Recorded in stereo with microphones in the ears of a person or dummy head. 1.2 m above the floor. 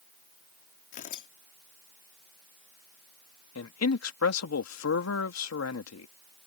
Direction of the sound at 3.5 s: 90° left.